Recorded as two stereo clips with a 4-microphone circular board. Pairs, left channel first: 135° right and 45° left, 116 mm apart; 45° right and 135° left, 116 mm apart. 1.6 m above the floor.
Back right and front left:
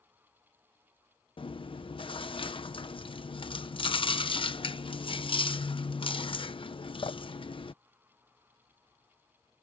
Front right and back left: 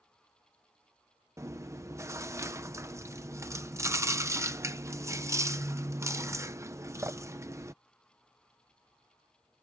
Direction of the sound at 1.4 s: 165° right.